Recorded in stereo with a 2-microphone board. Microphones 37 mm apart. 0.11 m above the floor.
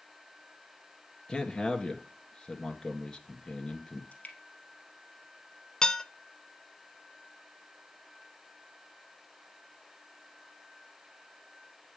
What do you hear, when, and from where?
1.3 s a man speaking: 20° left (ahead or behind), 1.5 m
4.1 s dripping: 35° left (ahead or behind), 3 m
5.8 s dishes clattering: 20° left (ahead or behind), 0.8 m